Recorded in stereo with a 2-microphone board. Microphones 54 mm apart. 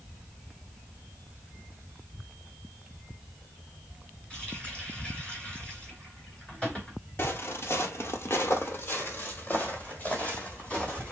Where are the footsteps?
45° left (ahead or behind), 1.2 m; by 11.1 s 20° left (ahead or behind), 3 m.